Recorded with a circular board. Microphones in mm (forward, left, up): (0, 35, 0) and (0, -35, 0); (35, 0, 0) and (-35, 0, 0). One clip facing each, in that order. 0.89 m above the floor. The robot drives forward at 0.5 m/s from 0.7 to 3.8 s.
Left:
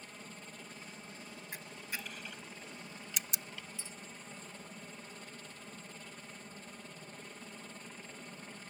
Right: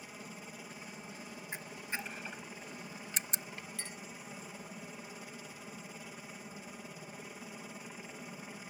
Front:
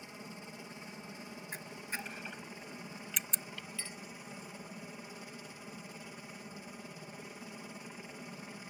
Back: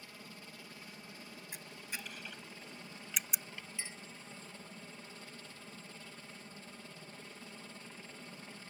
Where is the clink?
110° right.